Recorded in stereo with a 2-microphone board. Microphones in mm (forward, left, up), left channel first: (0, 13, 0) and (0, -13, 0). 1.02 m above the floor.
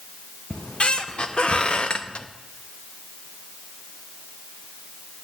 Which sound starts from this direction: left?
A squeak, at 0.5 s.